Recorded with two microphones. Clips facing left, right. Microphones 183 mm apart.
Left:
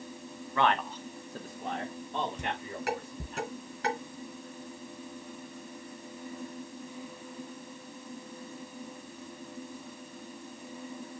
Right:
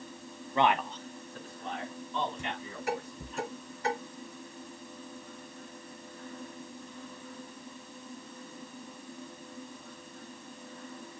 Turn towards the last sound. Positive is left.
turn(degrees=80)